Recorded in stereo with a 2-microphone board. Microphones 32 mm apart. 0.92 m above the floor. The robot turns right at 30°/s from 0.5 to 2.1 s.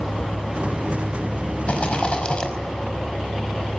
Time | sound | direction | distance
1.7 | a rattle | 50° left (ahead or behind) | 5 m